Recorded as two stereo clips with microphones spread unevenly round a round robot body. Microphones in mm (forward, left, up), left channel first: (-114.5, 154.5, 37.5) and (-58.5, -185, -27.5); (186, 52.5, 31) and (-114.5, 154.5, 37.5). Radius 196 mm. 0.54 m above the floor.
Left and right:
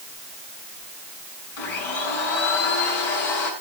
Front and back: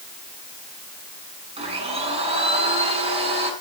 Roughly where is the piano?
I don't hear a piano.